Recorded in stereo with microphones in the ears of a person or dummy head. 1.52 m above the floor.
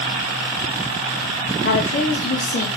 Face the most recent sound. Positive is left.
turn(degrees=35)  # may be behind; listen again after turning